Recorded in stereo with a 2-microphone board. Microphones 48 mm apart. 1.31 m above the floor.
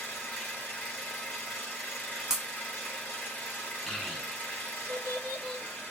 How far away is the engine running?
About 2.5 m.